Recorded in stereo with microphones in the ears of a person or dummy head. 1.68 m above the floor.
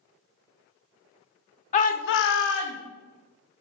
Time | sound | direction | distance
1.7 | a shout | 40° left (ahead or behind) | 0.8 m